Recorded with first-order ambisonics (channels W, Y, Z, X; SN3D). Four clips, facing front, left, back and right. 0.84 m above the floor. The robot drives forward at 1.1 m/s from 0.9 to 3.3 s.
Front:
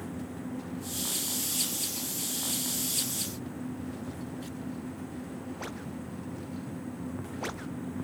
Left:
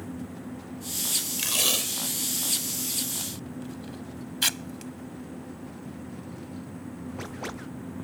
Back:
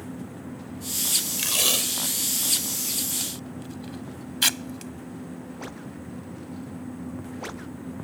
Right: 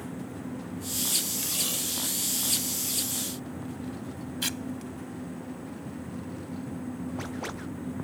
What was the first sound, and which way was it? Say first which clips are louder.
Tape being pulled: left 5 dB, back 9 dB; 145° left.